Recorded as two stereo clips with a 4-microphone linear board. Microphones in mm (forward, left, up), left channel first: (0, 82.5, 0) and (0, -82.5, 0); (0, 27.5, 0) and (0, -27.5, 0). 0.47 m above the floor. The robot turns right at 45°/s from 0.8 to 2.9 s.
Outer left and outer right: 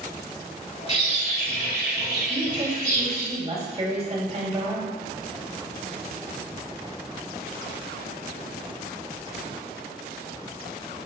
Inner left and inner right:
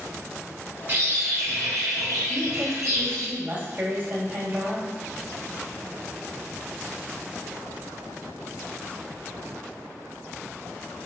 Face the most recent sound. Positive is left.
turn(degrees=-40)  # may be behind; listen again after turning